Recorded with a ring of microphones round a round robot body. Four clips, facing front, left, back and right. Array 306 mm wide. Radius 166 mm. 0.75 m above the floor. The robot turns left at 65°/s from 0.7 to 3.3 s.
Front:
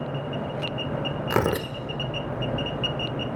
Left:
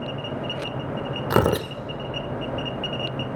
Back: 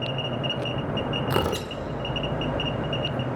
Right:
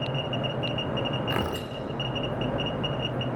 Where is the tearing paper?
85° left, 0.6 m; by 1.7 s 60° left, 0.6 m.